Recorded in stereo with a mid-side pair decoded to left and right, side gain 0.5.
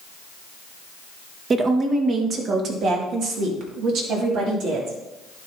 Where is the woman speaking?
45° right, 1.5 m; by 5.0 s 75° right, 3 m.